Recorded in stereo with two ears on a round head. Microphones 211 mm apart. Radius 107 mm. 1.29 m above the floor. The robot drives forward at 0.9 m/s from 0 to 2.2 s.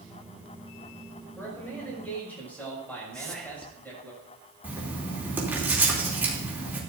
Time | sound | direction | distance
1.4 | a man speaking | 10° left (ahead or behind) | 6 m
3.1 | whispering | 5° left (ahead or behind) | 0.6 m
4.6 | writing | 10° right (ahead or behind) | 3 m